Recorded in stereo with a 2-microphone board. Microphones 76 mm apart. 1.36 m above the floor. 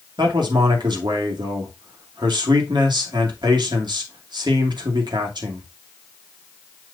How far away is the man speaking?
About 2 m.